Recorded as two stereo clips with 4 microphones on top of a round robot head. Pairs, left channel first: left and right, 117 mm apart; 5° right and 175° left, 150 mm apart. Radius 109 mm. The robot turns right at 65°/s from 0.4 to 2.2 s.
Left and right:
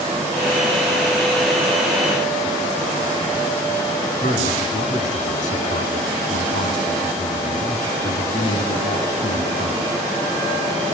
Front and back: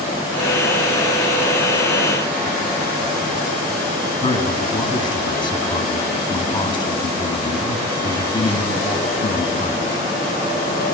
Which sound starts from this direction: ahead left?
A man speaking, at 4.2 s.